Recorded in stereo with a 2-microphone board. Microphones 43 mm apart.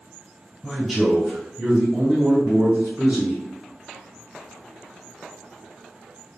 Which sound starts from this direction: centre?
A man speaking, at 0.6 s.